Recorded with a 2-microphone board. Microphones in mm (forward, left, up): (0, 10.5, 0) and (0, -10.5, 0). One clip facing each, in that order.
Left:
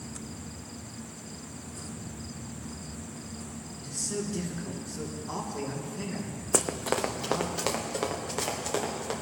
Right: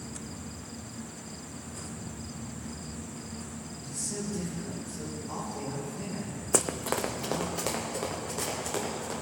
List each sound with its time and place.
3.8 s a man speaking: 45° left (ahead or behind), 3 m
6.5 s running footsteps: 10° left (ahead or behind), 0.7 m; by 9.1 s 30° left (ahead or behind), 3.5 m